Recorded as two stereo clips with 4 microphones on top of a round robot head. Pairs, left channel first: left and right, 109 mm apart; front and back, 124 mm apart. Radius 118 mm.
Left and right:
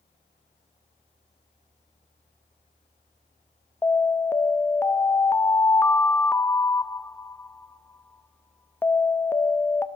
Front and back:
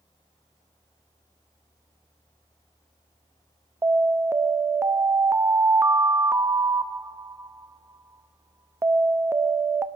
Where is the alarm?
135° left, 0.8 m.